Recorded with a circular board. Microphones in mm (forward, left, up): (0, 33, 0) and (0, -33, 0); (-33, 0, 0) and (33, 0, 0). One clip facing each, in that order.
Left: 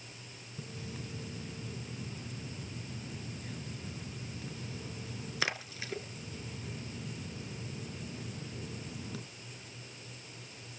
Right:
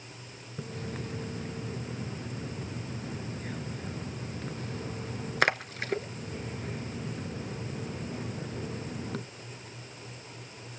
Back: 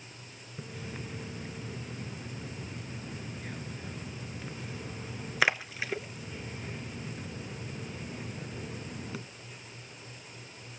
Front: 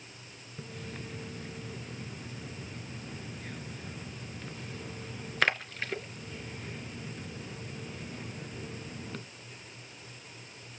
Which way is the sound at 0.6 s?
100° right.